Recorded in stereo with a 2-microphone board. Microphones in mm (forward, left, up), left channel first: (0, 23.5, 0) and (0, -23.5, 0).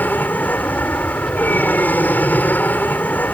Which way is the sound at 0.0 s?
35° left (ahead or behind).